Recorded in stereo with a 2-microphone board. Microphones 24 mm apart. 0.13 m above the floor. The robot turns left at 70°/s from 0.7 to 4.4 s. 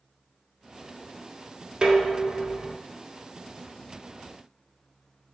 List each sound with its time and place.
1.8 s dishes clattering: 35° right, 0.9 m; by 2.8 s 100° right, 0.9 m